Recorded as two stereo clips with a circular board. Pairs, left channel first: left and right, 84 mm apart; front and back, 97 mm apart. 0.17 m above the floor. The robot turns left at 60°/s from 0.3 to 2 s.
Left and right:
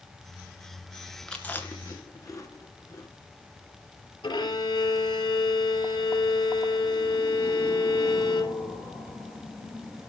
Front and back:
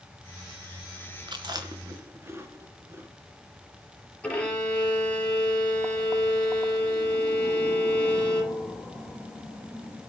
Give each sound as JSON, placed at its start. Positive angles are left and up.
{"t": 1.3, "sound": "chewing", "azimuth_deg": 170, "distance_m": 3.0}
{"t": 4.2, "sound": "a violin", "azimuth_deg": 80, "distance_m": 4.0}